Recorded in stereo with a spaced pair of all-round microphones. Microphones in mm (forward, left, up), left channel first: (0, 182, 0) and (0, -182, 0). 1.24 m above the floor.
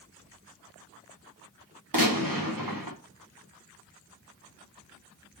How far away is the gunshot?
About 1.2 m.